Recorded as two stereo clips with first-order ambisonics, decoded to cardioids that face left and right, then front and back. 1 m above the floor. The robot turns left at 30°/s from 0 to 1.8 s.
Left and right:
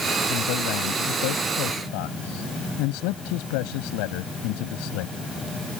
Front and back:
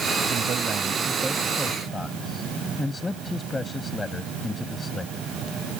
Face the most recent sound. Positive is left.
turn(degrees=80)